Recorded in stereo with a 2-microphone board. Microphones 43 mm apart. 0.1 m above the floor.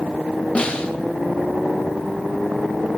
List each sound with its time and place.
0.6 s a snare drum: 25° left (ahead or behind), 1.2 m